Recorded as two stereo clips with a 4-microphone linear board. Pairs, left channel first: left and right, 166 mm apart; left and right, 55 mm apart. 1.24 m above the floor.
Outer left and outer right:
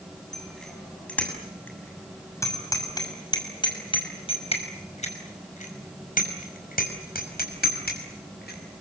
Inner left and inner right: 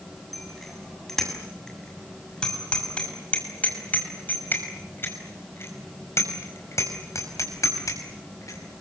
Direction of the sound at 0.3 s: 5° left (ahead or behind).